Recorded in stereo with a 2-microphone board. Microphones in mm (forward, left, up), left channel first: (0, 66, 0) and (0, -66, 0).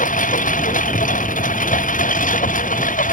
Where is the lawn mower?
80° left; by 3.1 s 85° left.